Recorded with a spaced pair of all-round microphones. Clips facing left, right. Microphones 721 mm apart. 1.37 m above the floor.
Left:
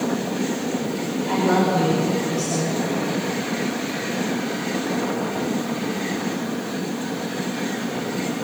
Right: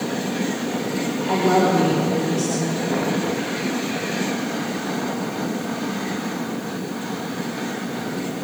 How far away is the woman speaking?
About 5 m.